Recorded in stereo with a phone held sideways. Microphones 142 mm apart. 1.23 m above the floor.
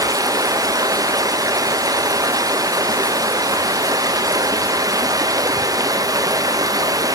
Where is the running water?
25° right (ahead or behind), 0.7 m.